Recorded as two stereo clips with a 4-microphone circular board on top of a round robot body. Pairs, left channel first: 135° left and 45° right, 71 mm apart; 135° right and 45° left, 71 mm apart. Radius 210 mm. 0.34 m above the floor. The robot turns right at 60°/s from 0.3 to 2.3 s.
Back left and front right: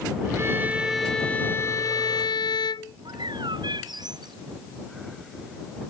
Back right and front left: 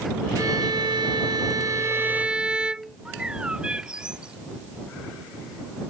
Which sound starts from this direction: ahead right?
A bird, at 3.0 s.